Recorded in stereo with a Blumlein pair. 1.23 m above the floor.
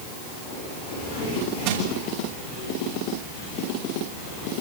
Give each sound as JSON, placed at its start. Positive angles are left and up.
{"t": 1.6, "sound": "crushing", "azimuth_deg": -50, "distance_m": 7.5}